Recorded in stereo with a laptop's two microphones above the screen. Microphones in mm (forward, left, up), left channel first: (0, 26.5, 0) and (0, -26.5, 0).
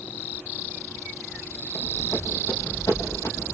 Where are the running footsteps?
60° left (ahead or behind), 6.5 m; by 3.5 s 55° left (ahead or behind), 7.5 m.